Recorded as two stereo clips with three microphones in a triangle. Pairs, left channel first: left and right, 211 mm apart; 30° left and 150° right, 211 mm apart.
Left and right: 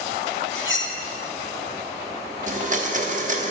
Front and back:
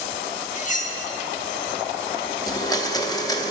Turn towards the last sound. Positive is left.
turn(degrees=-45)